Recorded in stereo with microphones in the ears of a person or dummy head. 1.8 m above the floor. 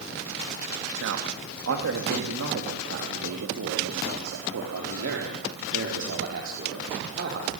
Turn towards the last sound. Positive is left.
turn(degrees=-65)  # may be behind; listen again after turning